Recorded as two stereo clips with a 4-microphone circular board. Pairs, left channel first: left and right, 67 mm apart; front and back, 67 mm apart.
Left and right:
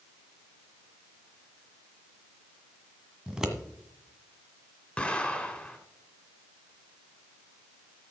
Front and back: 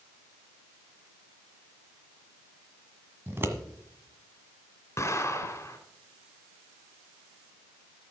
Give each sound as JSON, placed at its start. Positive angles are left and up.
{"t": 3.3, "sound": "scissors", "azimuth_deg": -165, "distance_m": 1.6}
{"t": 5.0, "sound": "an explosion", "azimuth_deg": 20, "distance_m": 2.5}